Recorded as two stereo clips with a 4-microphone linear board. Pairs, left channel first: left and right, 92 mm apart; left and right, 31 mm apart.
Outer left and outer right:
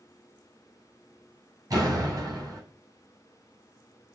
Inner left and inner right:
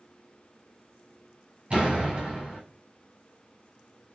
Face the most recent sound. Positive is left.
turn(degrees=-40)  # may be behind; listen again after turning